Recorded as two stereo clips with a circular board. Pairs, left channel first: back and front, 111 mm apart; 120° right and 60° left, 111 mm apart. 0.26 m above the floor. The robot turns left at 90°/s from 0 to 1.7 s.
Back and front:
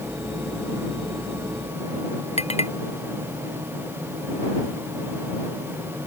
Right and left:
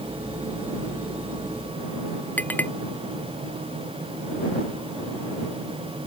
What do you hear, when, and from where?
2.4 s a clink: 165° left